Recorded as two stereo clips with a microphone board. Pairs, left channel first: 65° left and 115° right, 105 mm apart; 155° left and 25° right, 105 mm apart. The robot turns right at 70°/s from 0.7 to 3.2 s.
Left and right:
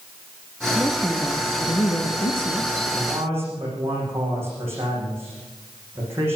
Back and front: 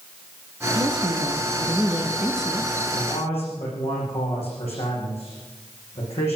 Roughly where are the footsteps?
I don't hear footsteps.